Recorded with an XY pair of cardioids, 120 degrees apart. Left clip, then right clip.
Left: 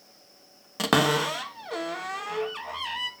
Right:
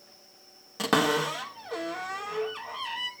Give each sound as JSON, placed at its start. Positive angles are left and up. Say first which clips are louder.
{"t": 0.8, "sound": "a cupboard door", "louder": "left 2 dB", "azimuth_deg": 25, "distance_m": 1.2}